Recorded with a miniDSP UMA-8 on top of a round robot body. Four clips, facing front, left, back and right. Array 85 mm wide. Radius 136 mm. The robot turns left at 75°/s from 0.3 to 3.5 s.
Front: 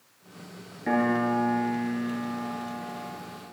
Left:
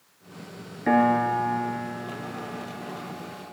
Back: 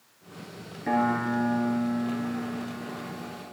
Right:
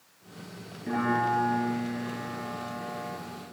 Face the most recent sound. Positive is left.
turn(degrees=-115)